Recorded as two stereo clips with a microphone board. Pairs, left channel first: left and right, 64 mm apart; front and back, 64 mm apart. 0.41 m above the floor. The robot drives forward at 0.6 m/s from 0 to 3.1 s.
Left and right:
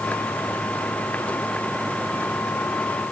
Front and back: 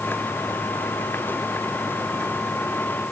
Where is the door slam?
No door slam in this recording.